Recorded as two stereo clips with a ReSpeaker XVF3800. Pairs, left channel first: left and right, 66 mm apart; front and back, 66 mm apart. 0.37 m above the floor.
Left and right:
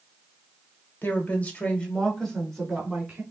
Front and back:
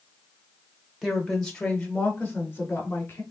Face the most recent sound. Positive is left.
turn(degrees=-25)